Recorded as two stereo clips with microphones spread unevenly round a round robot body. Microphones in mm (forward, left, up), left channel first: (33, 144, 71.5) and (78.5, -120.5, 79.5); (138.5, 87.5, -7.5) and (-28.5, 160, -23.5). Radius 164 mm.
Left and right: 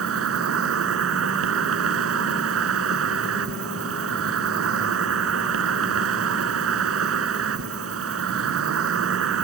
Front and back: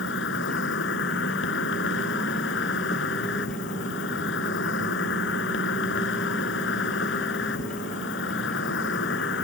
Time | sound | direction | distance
0.0 | an insect | 45° right | ?